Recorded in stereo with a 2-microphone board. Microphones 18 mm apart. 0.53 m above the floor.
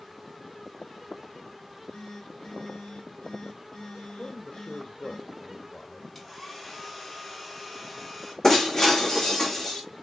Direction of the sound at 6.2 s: 10° left (ahead or behind).